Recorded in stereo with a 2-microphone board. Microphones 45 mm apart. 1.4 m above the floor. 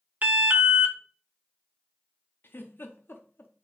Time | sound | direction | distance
0.2 | an alarm | 30° right (ahead or behind) | 0.7 m
2.4 | a giggle | 50° left (ahead or behind) | 0.7 m